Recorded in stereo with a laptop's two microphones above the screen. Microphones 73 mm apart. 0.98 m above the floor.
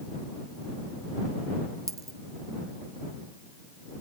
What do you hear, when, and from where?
1.9 s a dropped coin: 50° right (ahead or behind)